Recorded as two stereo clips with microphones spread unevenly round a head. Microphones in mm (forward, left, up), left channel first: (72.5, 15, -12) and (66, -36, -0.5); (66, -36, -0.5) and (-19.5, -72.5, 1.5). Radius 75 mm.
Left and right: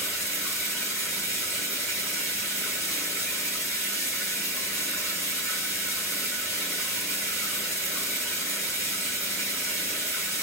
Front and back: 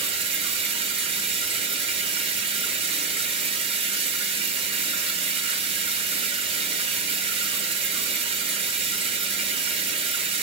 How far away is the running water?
About 2 m.